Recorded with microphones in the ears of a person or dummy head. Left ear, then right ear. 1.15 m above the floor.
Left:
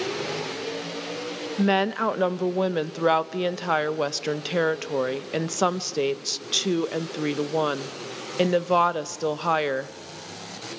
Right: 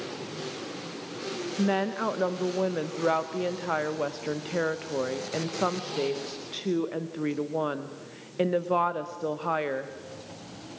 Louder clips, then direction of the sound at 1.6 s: Left 5 dB; 80° left.